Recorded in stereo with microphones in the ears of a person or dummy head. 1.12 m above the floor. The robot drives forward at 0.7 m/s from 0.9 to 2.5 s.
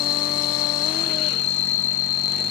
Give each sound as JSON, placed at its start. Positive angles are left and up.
{"t": 0.0, "sound": "an insect", "side_deg": 45}